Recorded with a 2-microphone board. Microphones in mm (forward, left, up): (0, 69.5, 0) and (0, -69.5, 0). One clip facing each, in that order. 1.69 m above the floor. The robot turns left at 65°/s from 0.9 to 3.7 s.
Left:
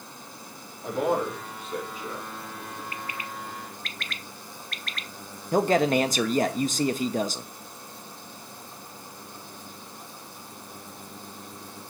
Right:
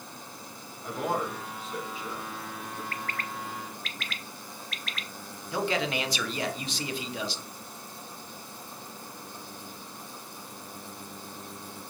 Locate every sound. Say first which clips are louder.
0.8 s a man speaking: left 5 dB; 55° left (ahead or behind), 3.5 m; by 2.8 s centre (ahead or behind), 3.5 m
2.9 s a bird: even; 20° left (ahead or behind), 0.5 m; by 5.1 s centre (ahead or behind), 0.5 m
5.5 s a man speaking: left 8 dB; 50° left (ahead or behind), 0.8 m